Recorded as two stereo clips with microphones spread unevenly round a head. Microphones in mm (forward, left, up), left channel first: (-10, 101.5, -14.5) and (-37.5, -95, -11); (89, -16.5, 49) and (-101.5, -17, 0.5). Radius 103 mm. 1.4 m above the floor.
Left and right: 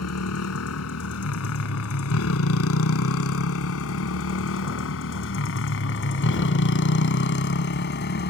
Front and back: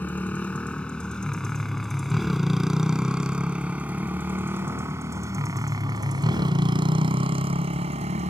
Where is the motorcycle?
80° left; by 8.3 s 120° left.